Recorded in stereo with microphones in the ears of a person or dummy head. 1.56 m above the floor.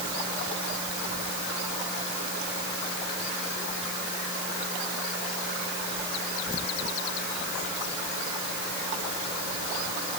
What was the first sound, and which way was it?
Only background noise.